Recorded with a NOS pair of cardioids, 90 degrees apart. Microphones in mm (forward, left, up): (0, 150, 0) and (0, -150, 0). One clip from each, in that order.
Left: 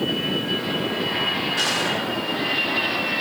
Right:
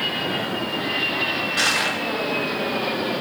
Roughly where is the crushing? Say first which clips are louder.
Right 4 dB; ahead right.